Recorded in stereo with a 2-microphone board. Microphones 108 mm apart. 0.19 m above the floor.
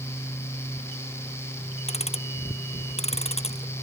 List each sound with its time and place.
1.9 s ticking: 70° left (ahead or behind)